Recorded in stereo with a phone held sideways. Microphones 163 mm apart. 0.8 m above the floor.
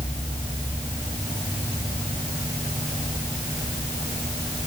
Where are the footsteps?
I don't hear footsteps.